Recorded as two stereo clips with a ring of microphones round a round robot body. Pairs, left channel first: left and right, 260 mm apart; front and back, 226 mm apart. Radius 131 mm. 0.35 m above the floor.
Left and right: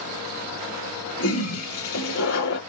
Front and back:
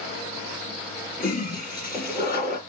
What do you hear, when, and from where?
1.2 s a toilet flushing: 50° left, 2.5 m